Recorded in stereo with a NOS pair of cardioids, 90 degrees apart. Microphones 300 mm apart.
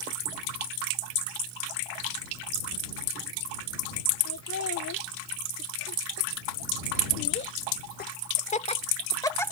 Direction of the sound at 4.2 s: 60° left.